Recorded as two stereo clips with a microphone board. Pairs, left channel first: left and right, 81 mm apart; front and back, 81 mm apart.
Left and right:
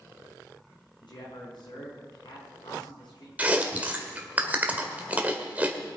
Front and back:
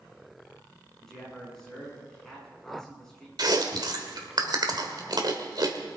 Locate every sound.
1.0 s a man speaking: 85° left, 6 m
3.4 s chewing: 160° right, 1.6 m